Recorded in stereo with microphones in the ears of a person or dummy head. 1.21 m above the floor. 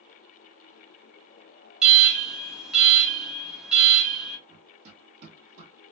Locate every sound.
1.8 s an alarm: 5° right (ahead or behind), 0.5 m
4.5 s running footsteps: 50° right (ahead or behind), 1.7 m; by 5.7 s 45° right (ahead or behind), 1.7 m